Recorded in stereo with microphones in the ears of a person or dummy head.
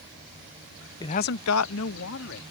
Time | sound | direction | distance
1.0 | a man speaking | 20° left (ahead or behind) | ?